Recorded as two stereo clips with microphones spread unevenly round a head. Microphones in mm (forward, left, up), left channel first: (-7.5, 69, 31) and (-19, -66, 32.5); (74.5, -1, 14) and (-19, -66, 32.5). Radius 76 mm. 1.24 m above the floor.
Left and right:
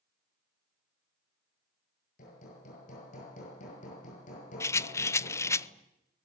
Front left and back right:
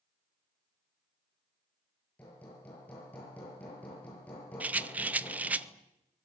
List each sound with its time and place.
2.2 s hammering: 115° left, 7.5 m
4.6 s a rattle: 135° left, 0.6 m